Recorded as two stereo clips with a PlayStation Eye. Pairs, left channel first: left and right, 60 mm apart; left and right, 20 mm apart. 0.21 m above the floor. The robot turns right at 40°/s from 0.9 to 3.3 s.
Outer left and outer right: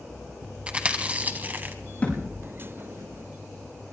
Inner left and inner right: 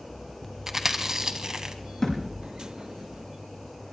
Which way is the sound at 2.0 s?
25° left (ahead or behind).